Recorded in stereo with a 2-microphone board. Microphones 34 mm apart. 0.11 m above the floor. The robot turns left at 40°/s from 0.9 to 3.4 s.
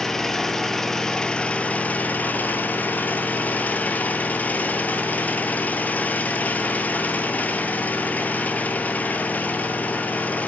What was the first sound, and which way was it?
An engine running, 165° left.